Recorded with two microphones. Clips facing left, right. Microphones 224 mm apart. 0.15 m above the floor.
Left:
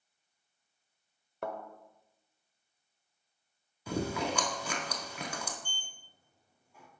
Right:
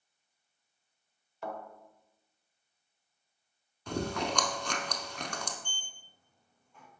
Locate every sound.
1.4 s a thud: 60° left (ahead or behind), 0.9 m
3.9 s chewing: 5° left (ahead or behind), 0.5 m
5.6 s a sliding door: 10° left (ahead or behind), 0.9 m